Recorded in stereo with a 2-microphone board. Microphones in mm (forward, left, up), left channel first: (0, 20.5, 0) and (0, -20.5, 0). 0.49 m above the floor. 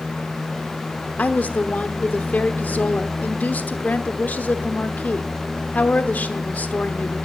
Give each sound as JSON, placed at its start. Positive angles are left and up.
{"t": 1.2, "sound": "a woman speaking", "side_deg": 45, "distance_m": 1.0}